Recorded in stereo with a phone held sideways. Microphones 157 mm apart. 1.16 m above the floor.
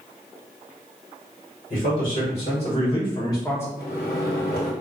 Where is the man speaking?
45° left (ahead or behind), 1.5 m; by 3.7 s 15° left (ahead or behind), 0.7 m.